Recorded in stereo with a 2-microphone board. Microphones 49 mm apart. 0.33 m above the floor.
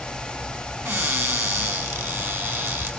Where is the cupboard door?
60° right (ahead or behind), 3 m.